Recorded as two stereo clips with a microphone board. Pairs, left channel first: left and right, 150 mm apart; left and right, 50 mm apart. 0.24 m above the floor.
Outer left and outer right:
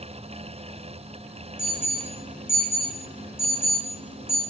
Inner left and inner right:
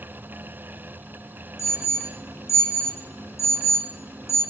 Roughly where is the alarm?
Left.